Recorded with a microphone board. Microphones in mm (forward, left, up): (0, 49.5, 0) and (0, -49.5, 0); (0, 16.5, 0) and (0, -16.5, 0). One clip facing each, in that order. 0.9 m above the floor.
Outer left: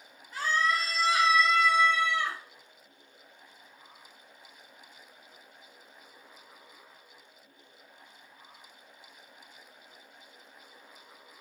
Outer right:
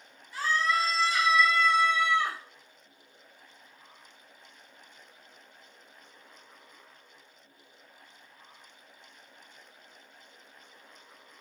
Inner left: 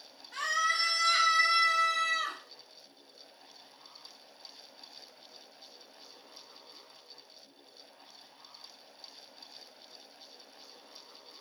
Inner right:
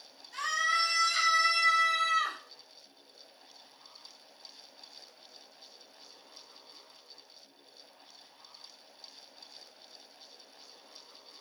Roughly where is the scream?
Left.